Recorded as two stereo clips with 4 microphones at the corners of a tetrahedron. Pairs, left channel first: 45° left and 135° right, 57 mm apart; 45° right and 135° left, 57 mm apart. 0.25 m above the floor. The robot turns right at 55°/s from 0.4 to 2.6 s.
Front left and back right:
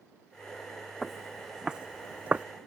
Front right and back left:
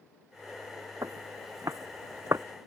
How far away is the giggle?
No giggle in this recording.